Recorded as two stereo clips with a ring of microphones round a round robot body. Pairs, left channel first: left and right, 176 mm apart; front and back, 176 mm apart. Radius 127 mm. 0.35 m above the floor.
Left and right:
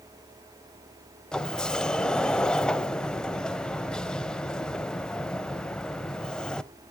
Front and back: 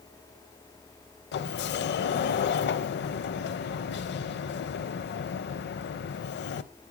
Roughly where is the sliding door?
Ahead.